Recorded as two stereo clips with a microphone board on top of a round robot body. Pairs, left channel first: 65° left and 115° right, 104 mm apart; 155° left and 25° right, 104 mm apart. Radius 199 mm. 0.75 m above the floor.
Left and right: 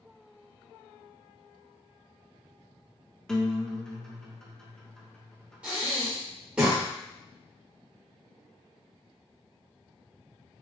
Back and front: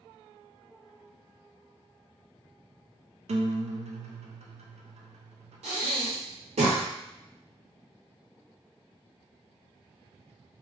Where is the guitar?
15° right, 0.6 m.